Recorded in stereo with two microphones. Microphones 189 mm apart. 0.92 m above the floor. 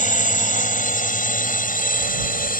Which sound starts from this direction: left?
A drone, at 0.0 s.